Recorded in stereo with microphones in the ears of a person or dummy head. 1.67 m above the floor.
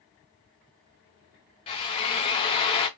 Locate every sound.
1.7 s a drill: 25° left (ahead or behind), 0.7 m